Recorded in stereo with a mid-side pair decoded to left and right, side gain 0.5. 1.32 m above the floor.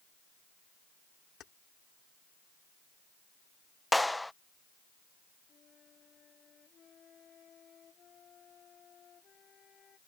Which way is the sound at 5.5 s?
50° left.